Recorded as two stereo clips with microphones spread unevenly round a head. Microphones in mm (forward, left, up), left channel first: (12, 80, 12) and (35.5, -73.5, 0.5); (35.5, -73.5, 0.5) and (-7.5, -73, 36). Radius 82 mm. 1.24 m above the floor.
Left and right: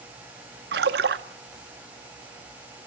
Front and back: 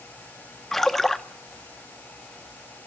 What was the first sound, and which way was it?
A splash, 105° right.